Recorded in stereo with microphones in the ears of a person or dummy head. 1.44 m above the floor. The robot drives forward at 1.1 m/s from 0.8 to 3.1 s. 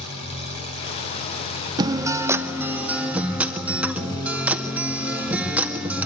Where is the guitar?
20° right (ahead or behind), 0.5 m; by 6.1 s 5° right (ahead or behind), 1.9 m.